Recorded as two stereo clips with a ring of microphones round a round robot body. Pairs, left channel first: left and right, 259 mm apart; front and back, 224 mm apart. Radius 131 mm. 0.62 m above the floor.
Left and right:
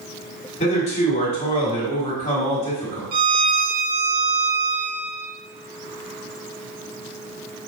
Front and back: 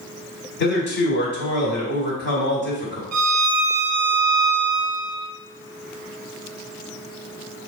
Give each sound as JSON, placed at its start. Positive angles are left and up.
{"t": 0.6, "sound": "a man speaking", "azimuth_deg": 30, "distance_m": 1.9}
{"t": 3.1, "sound": "a violin", "azimuth_deg": -150, "distance_m": 0.7}